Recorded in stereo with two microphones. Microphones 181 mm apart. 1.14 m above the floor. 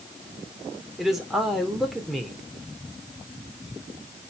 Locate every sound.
1.0 s a man speaking: centre (ahead or behind), 3 m